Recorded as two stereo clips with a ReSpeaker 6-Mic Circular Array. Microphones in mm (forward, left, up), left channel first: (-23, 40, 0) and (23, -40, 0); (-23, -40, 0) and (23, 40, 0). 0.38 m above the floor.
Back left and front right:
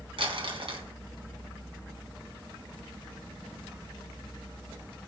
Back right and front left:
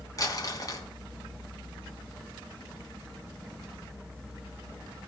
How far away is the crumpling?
About 3 m.